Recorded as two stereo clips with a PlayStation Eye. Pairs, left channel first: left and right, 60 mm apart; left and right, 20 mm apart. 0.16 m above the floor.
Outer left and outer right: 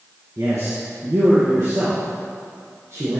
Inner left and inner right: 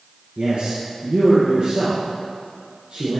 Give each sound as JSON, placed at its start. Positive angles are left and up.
{"t": 0.4, "sound": "a man speaking", "side_deg": -60, "distance_m": 3.0}